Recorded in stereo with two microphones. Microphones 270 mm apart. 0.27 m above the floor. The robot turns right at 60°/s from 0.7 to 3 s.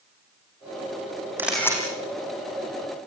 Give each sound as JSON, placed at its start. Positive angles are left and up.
{"t": 1.4, "sound": "a camera shutter", "side_deg": -10, "distance_m": 6.5}